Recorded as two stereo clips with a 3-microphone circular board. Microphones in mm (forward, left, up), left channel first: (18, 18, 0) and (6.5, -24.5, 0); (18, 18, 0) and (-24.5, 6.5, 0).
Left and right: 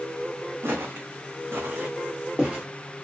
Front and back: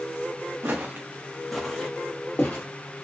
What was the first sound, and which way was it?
Footsteps, 130° right.